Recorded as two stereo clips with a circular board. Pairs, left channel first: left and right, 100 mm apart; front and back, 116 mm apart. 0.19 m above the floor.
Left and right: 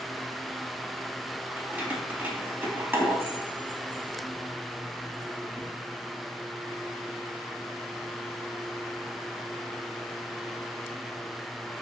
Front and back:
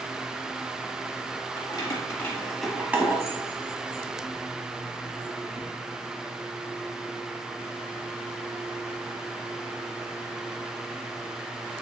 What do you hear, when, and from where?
1.6 s keys jangling: 20° right, 0.8 m; by 5.7 s 165° right, 1.7 m